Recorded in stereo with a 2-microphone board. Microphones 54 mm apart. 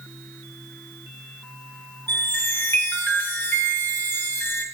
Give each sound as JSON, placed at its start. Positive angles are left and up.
{"t": 2.1, "sound": "a chime", "side_deg": 40, "distance_m": 3.0}